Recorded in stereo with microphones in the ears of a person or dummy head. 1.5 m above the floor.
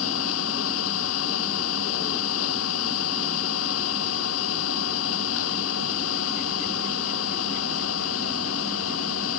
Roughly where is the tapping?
I don't hear tapping.